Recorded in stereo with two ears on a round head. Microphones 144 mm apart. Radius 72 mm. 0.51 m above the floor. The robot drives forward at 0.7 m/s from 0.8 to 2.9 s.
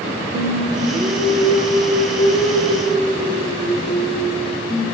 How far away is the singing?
About 1.2 m.